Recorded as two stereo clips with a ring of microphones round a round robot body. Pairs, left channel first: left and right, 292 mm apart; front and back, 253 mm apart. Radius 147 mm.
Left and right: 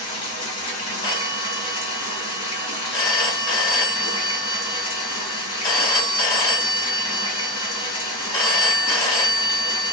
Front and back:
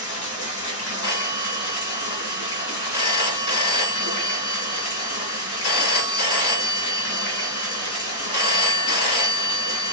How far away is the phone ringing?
About 2.5 m.